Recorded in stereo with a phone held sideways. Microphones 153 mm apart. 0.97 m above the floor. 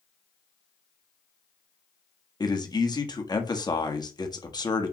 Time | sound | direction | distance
2.4 | a man speaking | 25° left (ahead or behind) | 1.3 m